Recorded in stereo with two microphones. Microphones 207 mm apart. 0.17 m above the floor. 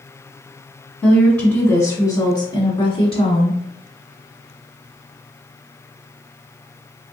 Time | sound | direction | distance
1.0 | a woman speaking | centre (ahead or behind) | 1.2 m